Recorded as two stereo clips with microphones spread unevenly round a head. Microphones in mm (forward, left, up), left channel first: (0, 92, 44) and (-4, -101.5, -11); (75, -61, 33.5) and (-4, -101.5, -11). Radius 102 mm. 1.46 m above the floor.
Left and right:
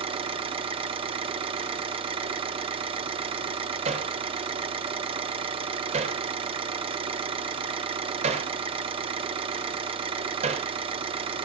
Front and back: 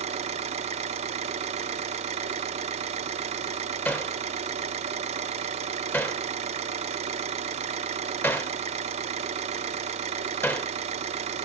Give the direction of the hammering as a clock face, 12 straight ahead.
1 o'clock.